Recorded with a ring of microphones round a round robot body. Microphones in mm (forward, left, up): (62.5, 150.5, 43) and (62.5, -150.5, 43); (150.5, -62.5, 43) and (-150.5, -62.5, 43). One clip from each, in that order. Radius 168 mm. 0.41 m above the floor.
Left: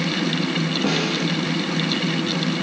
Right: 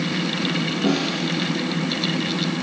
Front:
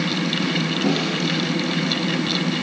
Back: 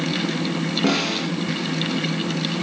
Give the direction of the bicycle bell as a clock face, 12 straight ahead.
No bicycle bell in this recording.